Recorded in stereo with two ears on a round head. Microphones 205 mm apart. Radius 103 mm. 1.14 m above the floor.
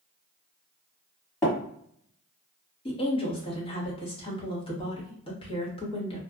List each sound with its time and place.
1.4 s tapping: 10° left (ahead or behind), 1.4 m
2.9 s a woman speaking: 25° left (ahead or behind), 1.0 m